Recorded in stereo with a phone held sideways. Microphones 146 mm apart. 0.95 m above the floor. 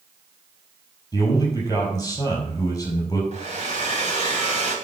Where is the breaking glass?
No breaking glass in this recording.